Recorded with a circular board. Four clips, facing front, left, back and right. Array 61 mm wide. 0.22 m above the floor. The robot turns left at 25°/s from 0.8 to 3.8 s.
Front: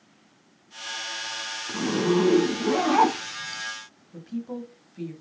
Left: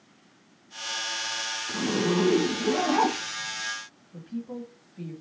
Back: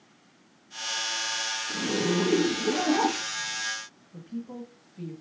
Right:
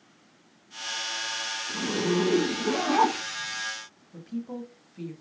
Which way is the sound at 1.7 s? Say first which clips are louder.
Left 1 dB, front 5 dB; 25° left.